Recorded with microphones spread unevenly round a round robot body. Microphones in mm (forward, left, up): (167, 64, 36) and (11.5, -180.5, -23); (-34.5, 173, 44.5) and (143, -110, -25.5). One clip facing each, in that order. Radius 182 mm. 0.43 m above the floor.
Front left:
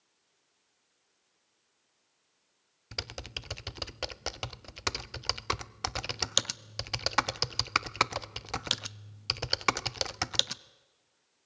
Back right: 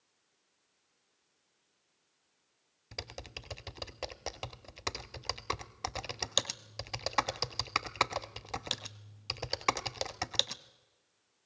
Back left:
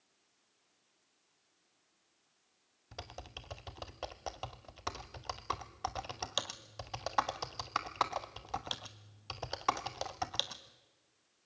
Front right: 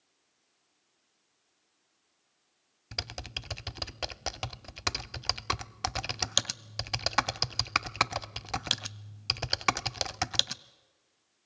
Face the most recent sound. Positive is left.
turn(degrees=-10)